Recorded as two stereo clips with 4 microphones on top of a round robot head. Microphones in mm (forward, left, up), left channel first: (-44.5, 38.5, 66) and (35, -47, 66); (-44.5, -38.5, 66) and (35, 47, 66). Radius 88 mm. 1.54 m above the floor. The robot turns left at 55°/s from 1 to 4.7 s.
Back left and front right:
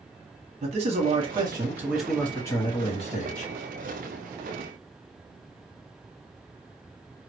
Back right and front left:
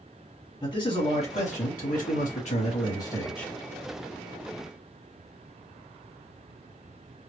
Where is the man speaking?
80° right, 1.0 m; by 3.5 s 140° left, 1.0 m.